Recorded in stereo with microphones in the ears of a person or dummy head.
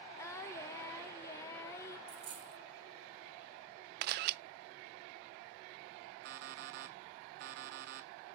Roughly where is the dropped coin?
Right.